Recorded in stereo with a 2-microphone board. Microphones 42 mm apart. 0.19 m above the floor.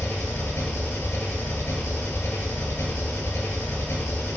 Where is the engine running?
60° left (ahead or behind), 0.9 m.